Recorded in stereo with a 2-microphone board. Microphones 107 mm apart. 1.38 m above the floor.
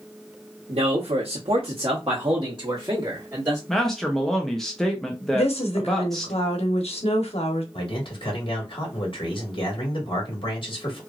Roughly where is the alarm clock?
No alarm clock in this recording.